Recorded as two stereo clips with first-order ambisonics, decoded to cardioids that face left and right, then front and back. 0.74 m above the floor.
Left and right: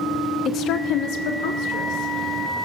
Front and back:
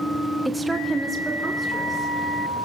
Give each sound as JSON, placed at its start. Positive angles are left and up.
{"t": 0.5, "sound": "a woman speaking", "azimuth_deg": 100, "distance_m": 0.7}